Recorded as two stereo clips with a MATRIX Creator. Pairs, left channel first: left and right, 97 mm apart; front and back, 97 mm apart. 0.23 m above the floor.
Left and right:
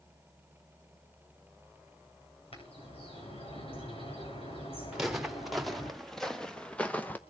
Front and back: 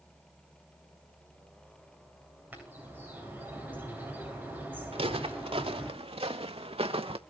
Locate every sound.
2.5 s a bird: 105° left, 9.5 m
4.9 s footsteps: 175° right, 2.5 m; by 7.2 s 165° left, 1.4 m